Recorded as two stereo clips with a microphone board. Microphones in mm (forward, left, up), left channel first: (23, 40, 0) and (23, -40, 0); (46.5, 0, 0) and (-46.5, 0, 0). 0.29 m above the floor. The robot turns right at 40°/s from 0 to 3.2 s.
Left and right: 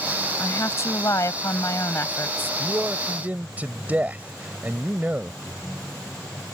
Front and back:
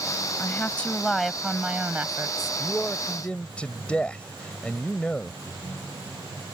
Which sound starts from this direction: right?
A man speaking, at 2.6 s.